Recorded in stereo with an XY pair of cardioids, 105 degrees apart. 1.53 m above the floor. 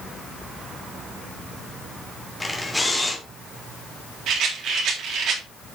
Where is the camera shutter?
10° left, 2.5 m.